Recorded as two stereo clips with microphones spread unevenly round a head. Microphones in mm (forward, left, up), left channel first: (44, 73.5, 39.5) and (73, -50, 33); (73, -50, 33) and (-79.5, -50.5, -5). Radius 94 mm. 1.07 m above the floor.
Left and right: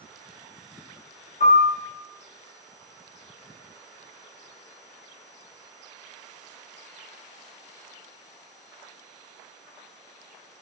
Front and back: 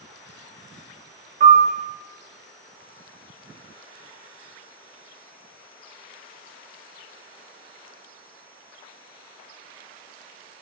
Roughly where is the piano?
Behind left.